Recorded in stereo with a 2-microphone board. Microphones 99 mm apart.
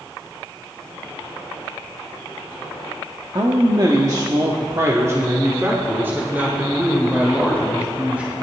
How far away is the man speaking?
About 1.3 m.